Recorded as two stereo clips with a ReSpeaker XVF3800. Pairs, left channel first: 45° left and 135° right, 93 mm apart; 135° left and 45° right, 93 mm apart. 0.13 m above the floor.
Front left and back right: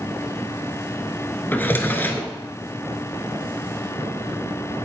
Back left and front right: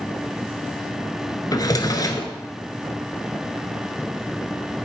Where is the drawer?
105° left, 1.1 m.